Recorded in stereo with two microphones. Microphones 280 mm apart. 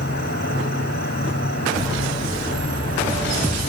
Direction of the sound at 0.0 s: 40° left (ahead or behind).